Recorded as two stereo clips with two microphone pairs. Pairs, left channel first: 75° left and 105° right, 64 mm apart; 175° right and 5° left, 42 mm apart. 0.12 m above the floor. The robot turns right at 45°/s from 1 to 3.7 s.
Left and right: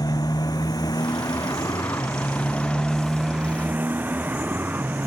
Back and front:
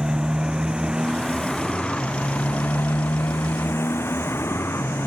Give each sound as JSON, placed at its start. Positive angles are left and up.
{"t": 0.0, "sound": "a motorcycle", "azimuth_deg": 75}